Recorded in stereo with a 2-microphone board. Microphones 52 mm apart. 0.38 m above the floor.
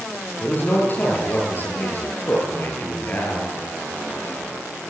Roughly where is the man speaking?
Left.